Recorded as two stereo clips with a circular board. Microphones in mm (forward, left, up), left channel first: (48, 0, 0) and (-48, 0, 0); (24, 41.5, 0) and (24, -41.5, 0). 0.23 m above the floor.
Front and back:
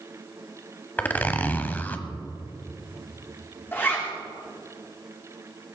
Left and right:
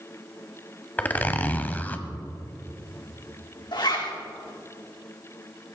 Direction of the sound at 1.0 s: 50° left.